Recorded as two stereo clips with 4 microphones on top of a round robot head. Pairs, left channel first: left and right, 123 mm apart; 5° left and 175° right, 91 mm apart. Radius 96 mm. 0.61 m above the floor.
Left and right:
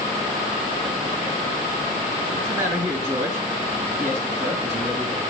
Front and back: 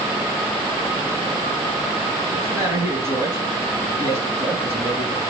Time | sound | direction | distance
2.3 | a man speaking | 115° right | 4 m